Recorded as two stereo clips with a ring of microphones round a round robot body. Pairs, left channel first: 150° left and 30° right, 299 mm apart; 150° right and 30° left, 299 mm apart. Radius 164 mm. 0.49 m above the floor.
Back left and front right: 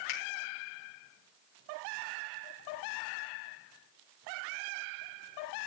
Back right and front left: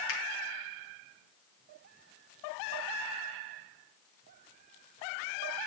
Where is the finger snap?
165° left, 5.5 m.